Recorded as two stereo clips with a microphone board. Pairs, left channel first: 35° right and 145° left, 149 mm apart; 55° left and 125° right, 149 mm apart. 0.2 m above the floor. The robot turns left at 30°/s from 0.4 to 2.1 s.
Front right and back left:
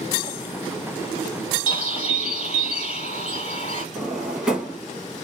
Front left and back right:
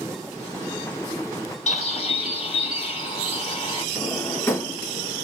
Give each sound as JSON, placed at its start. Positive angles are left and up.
{"t": 1.7, "sound": "a bird", "azimuth_deg": 20, "distance_m": 1.5}
{"t": 4.0, "sound": "a drawer", "azimuth_deg": 75, "distance_m": 0.8}